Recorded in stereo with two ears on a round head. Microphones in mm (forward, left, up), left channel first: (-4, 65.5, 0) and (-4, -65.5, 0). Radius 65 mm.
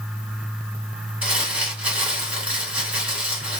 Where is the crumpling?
10° right (ahead or behind), 1.8 m.